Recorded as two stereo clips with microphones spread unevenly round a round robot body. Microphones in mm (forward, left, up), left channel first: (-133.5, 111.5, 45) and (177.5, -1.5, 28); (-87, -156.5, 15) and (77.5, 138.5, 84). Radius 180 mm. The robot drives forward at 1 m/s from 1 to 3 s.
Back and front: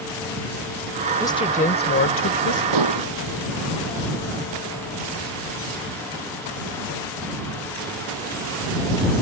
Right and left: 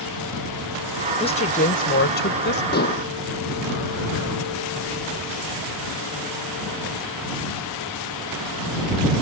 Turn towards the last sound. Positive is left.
turn(degrees=-55)